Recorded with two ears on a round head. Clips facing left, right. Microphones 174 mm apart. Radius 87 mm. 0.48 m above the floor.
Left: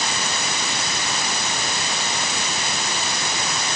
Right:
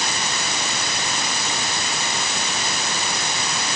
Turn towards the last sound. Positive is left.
No sound to turn to.